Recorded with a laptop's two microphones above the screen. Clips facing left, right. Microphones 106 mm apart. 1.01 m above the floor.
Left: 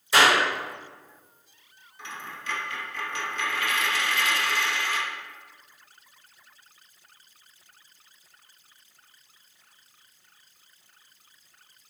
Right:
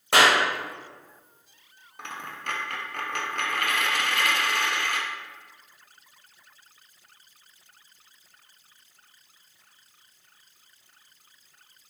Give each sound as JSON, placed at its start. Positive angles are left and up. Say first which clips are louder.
{"t": 0.1, "sound": "a clap", "louder": "even", "side_deg": -70, "distance_m": 1.4}
{"t": 2.0, "sound": "a dropped coin", "louder": "right 2 dB", "side_deg": -60, "distance_m": 0.5}